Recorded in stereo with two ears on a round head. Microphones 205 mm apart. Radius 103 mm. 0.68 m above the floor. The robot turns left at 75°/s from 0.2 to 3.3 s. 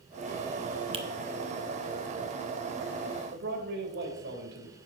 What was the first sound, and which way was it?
A finger snap, 25° right (ahead or behind).